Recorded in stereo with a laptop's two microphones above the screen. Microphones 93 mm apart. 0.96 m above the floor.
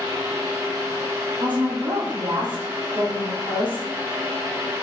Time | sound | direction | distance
0.0 | a fan | 35° right (ahead or behind) | 3 m
1.4 | a woman speaking | 70° right (ahead or behind) | 2.5 m